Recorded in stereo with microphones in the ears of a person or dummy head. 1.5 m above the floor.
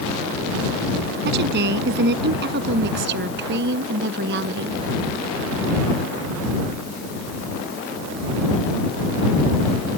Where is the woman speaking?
55° right (ahead or behind); by 4.8 s 60° right (ahead or behind).